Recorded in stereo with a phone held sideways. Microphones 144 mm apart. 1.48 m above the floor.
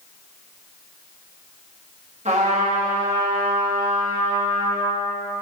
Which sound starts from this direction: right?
A trumpet, at 2.2 s.